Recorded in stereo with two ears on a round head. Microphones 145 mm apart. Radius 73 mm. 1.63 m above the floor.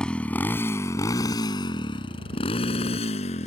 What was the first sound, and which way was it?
A motorcycle, 5° left (ahead or behind).